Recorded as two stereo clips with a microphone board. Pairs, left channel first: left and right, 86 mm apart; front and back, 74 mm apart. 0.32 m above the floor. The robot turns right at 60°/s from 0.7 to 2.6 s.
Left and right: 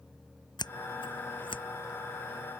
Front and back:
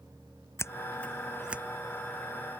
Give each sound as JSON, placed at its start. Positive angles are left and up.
{"t": 0.6, "sound": "scissors", "azimuth_deg": 55}